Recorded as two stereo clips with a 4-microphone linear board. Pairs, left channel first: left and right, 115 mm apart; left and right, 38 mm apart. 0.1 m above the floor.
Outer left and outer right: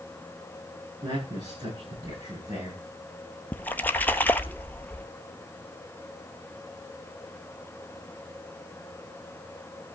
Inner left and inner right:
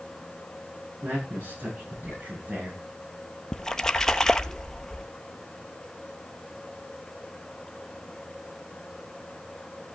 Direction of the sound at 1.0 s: 40° right (ahead or behind).